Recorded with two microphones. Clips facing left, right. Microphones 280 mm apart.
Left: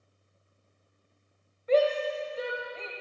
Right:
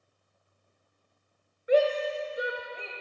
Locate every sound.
1.7 s a shout: 15° right (ahead or behind), 1.6 m